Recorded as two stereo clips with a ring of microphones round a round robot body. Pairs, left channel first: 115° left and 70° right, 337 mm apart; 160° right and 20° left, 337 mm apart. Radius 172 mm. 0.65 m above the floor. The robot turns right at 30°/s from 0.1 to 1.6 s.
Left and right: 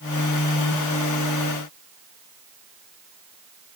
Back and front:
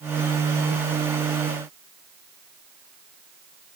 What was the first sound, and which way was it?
Only background noise.